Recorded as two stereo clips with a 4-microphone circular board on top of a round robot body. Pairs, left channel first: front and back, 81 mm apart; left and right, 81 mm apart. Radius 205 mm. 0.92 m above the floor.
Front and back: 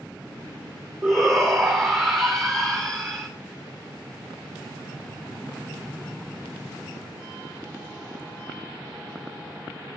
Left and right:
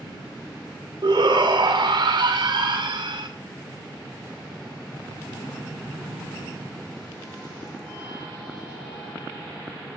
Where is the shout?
125° right, 1.9 m.